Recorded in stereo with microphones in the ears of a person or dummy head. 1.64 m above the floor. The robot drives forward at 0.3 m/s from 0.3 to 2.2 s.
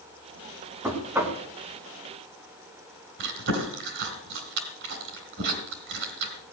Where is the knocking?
5° right (ahead or behind), 2 m.